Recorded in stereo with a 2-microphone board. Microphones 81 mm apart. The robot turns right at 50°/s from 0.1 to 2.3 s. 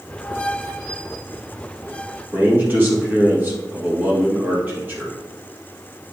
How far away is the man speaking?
About 2.5 m.